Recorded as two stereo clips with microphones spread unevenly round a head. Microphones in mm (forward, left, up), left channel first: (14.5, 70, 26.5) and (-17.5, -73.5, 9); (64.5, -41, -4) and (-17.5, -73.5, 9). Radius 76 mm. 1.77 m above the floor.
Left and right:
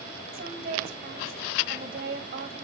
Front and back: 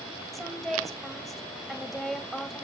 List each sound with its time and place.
0.3 s a woman speaking: 70° right, 1.6 m